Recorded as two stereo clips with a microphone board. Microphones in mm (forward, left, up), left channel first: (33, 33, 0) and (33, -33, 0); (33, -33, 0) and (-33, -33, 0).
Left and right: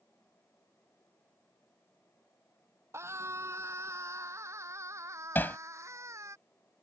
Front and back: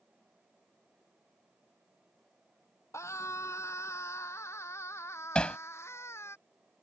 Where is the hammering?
60° left.